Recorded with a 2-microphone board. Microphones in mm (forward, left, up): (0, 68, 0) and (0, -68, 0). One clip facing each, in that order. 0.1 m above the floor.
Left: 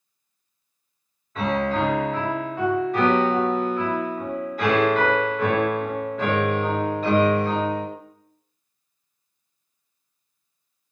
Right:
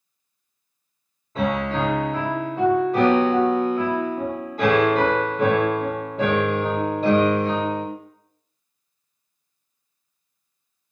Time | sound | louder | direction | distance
1.4 | a piano | even | 30° right (ahead or behind) | 1.2 m